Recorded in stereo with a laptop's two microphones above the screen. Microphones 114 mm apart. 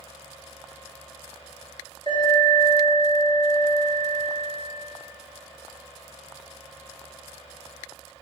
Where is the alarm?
45° right (ahead or behind), 2 m.